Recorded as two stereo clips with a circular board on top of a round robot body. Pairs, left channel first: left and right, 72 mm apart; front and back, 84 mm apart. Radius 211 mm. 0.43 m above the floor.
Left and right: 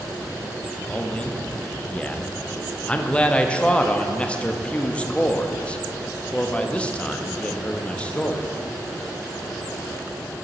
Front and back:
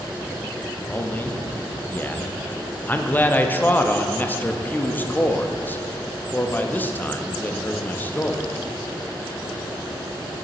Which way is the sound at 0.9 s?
40° left.